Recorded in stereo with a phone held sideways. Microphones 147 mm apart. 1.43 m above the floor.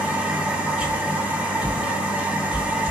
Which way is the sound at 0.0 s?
10° right (ahead or behind).